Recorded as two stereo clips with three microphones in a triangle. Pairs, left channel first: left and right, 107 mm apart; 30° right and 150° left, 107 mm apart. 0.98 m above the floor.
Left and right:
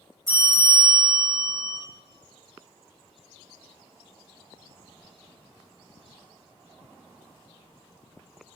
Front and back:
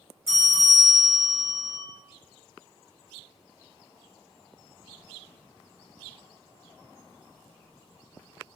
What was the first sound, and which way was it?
A bell, 145° right.